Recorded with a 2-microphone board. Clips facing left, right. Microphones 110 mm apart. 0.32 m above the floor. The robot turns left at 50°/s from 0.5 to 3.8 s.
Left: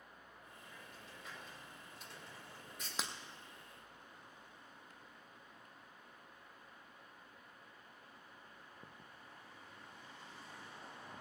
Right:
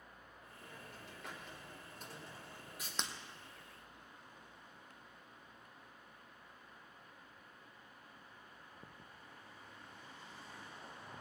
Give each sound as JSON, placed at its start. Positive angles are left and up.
{"t": 0.6, "sound": "a hiss", "azimuth_deg": -65, "distance_m": 4.0}
{"t": 3.0, "sound": "breaking glass", "side_deg": 5, "distance_m": 1.3}